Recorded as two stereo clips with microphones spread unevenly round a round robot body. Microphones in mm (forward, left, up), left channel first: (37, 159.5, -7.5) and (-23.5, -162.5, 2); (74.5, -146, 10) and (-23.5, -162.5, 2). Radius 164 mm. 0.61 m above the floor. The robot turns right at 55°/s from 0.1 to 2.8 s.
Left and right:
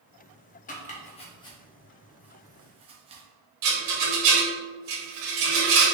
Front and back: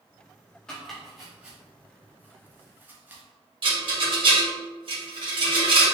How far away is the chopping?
About 0.8 m.